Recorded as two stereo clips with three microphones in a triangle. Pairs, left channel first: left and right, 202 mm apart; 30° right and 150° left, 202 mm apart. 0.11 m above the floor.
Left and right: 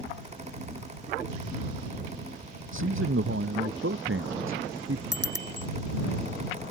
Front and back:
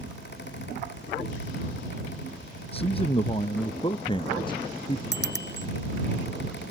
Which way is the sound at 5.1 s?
65° right.